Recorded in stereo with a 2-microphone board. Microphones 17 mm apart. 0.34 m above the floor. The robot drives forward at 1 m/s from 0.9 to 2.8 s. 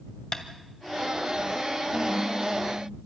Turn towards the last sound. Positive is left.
turn(degrees=40)  # may be behind; listen again after turning